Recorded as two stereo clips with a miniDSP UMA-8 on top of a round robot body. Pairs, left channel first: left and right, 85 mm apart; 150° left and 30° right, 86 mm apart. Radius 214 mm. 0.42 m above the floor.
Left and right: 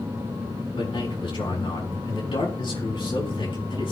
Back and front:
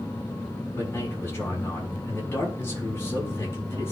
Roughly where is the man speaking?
Left.